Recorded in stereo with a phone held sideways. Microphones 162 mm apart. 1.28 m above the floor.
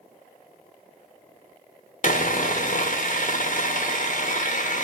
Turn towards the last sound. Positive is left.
turn(degrees=60)  # may be behind; listen again after turning